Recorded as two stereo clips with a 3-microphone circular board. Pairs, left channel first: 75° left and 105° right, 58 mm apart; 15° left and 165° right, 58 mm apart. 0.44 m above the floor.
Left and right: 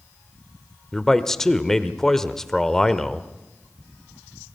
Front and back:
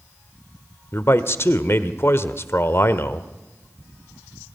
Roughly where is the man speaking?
Ahead.